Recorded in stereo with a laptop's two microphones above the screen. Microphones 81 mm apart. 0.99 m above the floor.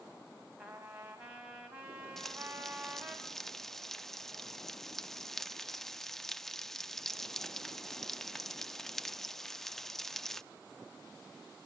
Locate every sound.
0.6 s a trumpet: 15° right (ahead or behind), 5.5 m
2.2 s frying: 5° left (ahead or behind), 0.8 m